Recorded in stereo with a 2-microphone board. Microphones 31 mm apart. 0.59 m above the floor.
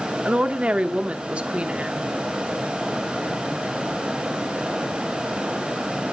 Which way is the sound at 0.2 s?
45° right (ahead or behind).